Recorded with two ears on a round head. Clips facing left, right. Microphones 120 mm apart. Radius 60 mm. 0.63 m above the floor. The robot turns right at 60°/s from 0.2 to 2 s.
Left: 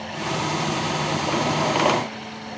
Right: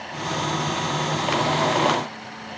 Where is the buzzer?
No buzzer in this recording.